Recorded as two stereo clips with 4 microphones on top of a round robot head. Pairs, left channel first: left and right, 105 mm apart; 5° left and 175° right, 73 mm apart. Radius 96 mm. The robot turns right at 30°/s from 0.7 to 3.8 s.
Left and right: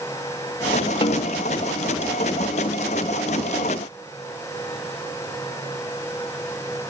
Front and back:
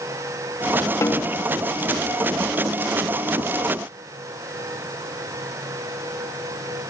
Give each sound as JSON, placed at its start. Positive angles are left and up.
{"t": 1.0, "sound": "a snare drum", "azimuth_deg": 55}